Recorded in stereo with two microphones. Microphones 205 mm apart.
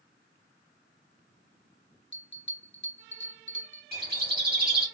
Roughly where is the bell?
Left.